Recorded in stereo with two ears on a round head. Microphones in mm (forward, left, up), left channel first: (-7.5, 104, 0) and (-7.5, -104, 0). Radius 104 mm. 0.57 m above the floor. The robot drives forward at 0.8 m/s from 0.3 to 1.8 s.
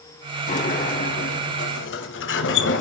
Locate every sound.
0.5 s a sliding door: 35° left (ahead or behind), 2.5 m; by 2.8 s 55° left (ahead or behind), 1.9 m